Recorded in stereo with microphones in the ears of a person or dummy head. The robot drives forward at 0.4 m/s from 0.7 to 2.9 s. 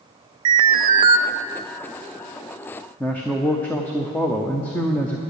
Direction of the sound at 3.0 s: 10° left (ahead or behind).